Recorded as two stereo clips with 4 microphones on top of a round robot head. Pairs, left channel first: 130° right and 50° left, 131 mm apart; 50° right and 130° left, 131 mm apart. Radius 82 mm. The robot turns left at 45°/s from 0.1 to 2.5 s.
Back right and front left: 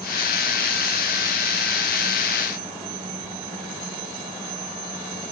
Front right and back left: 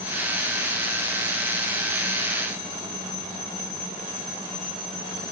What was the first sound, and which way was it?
Only background noise.